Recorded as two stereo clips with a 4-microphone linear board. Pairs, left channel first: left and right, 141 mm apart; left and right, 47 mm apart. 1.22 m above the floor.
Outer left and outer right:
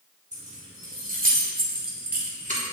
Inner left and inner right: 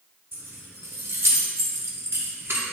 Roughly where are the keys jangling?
Right.